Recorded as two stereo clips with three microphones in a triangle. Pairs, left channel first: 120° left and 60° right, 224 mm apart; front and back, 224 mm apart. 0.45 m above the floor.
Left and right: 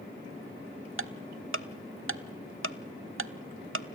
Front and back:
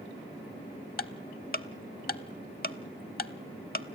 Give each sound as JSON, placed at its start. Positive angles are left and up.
{"t": 1.0, "sound": "ticking", "azimuth_deg": -45, "distance_m": 0.6}